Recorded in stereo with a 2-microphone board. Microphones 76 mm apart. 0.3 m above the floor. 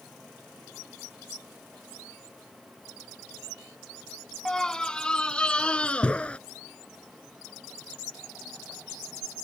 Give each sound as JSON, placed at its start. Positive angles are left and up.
{"t": 4.5, "sound": "a scream", "side_deg": 10}